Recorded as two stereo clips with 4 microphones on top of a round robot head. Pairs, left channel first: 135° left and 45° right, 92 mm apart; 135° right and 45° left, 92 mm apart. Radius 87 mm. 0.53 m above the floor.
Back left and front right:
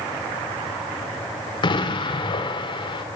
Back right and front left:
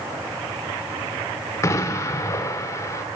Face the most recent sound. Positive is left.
turn(degrees=170)